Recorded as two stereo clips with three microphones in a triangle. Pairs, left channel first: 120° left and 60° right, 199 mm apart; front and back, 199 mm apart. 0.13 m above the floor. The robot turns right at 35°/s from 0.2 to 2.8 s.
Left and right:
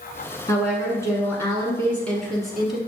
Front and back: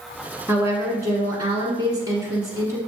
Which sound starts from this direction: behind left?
A woman speaking, at 0.5 s.